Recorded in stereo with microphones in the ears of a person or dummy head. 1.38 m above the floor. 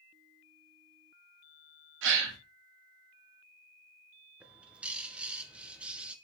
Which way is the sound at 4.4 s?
10° right (ahead or behind).